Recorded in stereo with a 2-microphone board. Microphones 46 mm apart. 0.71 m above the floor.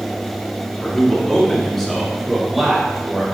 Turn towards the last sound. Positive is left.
turn(degrees=0)  # may be behind; listen again after turning